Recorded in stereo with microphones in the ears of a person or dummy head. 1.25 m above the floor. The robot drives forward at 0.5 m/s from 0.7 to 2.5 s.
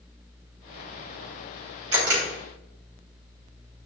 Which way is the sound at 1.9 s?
80° right.